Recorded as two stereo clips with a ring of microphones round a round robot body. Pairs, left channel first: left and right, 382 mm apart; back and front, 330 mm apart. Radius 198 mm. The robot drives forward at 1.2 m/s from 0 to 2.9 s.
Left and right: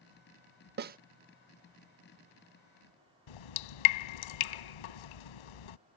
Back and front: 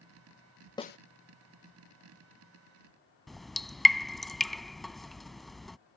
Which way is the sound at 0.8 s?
115° right.